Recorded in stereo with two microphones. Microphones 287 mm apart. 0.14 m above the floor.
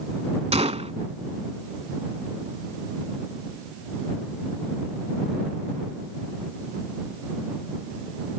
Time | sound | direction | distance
0.5 | a gunshot | 20° right (ahead or behind) | ?